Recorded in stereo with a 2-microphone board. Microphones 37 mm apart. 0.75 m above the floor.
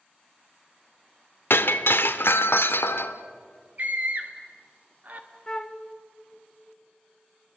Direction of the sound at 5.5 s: 20° left (ahead or behind).